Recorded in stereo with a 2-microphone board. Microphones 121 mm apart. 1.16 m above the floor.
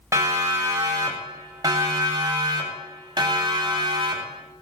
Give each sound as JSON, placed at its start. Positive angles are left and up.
{"t": 0.1, "sound": "a siren", "side_deg": -25, "distance_m": 7.0}